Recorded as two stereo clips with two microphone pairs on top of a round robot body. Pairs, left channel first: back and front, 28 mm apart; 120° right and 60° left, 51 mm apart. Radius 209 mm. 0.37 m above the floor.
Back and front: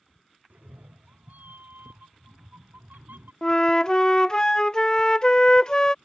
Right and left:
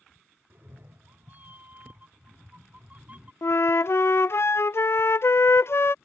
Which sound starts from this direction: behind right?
A flute, at 3.4 s.